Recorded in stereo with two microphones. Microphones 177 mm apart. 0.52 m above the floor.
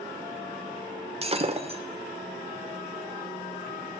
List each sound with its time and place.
1.2 s breaking glass: 35° right (ahead or behind), 0.9 m